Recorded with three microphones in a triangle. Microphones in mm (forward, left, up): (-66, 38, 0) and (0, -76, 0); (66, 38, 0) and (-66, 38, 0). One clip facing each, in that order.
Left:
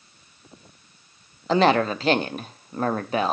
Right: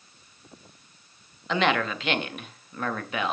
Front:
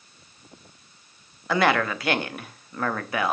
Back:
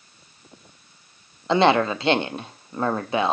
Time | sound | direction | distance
1.5 | a woman speaking | 135° left | 0.7 m